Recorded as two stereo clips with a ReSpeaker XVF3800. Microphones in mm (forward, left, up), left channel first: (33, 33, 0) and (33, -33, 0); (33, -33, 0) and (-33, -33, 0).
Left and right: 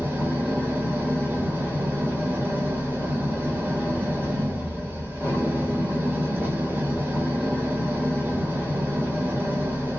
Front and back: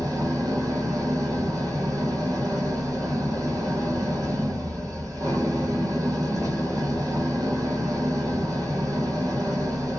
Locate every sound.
0.0 s an engine running: 150° right, 1.3 m